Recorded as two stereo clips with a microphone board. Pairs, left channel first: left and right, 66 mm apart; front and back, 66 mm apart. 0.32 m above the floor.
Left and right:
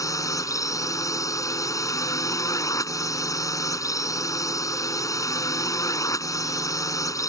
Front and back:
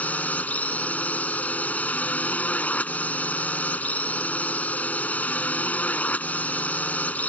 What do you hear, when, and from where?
0.0 s a drone: 65° left